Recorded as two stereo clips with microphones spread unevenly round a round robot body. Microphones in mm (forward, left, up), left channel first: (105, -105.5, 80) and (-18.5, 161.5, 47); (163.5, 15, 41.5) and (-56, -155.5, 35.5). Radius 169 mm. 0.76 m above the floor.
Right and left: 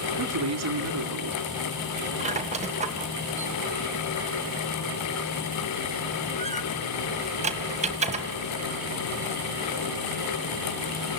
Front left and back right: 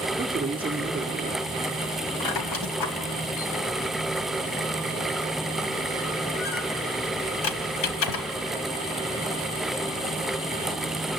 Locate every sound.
0.2 s a man speaking: 145° left, 1.9 m
2.2 s a squeak: 45° left, 1.9 m